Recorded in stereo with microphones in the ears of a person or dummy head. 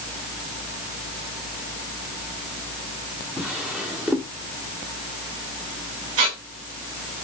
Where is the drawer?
10° right (ahead or behind), 1.8 m.